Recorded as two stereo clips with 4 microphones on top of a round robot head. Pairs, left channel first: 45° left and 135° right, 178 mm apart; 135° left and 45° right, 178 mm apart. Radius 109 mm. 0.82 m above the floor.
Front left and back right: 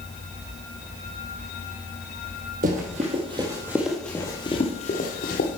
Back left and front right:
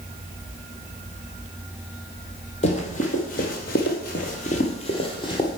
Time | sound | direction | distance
2.6 | running footsteps | 175° right | 1.4 m